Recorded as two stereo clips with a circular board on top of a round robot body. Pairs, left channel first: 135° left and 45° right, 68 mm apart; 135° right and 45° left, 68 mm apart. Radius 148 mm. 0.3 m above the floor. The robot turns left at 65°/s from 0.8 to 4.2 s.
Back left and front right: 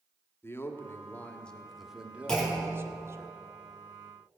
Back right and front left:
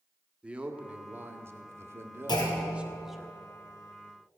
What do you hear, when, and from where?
0.4 s a man speaking: 110° left, 1.7 m; by 3.3 s 55° right, 1.7 m
2.3 s a clunk: 145° right, 3.5 m; by 2.9 s 175° left, 3.5 m